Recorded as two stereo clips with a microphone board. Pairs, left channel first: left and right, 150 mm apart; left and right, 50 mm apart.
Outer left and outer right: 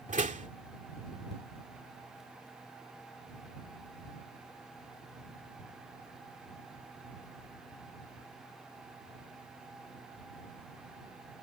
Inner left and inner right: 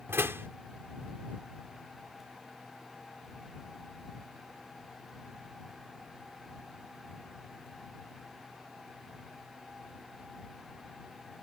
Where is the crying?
I don't hear crying.